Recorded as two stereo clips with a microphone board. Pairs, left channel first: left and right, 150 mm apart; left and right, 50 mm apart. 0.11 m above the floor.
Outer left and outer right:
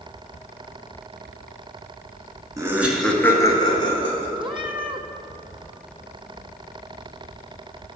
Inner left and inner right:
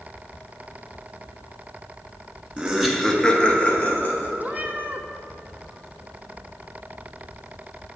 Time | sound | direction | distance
2.6 | laughter | 20° right (ahead or behind) | 1.1 m
4.4 | a cat meowing | 35° right (ahead or behind) | 0.7 m